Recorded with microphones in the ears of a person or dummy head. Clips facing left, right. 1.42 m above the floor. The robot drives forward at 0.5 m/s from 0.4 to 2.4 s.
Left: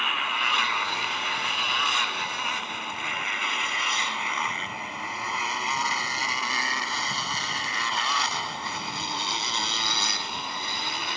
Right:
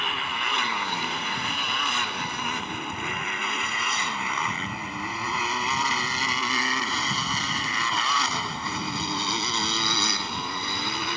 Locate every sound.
0.0 s a motorcycle: 40° right (ahead or behind); by 11.2 s 75° right (ahead or behind)